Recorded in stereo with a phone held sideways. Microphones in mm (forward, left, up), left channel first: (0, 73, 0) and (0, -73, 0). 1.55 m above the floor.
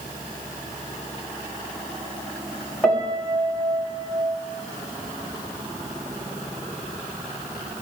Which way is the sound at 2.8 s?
5° left (ahead or behind).